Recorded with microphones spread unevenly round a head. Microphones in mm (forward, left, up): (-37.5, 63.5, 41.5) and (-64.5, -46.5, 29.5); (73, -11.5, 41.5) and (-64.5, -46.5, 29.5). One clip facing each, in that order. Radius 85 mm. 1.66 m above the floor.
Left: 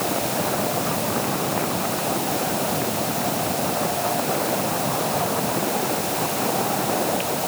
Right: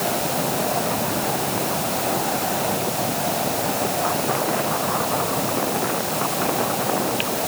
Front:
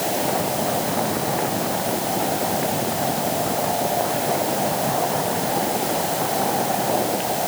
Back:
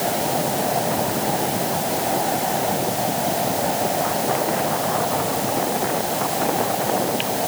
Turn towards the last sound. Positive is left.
No sound to turn to.